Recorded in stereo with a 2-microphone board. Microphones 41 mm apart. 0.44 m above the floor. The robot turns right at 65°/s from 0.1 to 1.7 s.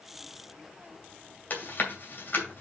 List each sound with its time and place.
1.5 s chewing: 45° left (ahead or behind), 2.5 m; by 2.6 s 55° left (ahead or behind), 2.5 m